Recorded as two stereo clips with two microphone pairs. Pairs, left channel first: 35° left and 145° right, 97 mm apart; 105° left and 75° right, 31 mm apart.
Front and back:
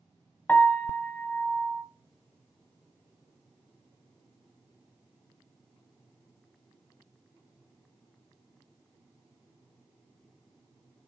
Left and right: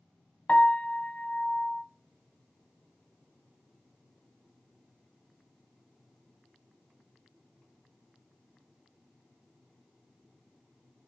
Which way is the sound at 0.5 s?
100° left.